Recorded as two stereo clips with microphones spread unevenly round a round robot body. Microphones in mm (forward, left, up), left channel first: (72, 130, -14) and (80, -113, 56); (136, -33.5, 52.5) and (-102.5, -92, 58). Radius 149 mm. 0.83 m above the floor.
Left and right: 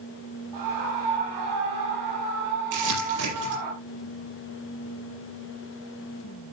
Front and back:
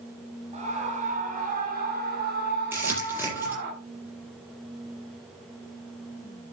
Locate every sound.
0.5 s a scream: 100° right, 5.5 m; by 3.7 s 125° right, 6.5 m
2.7 s crumpling: 85° right, 8 m